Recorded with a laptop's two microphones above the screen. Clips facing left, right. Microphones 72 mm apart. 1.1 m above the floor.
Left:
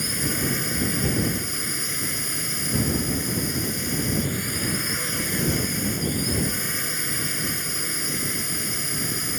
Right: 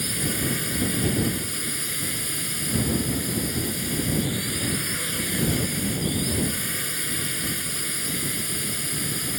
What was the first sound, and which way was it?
A drone, 15° left (ahead or behind).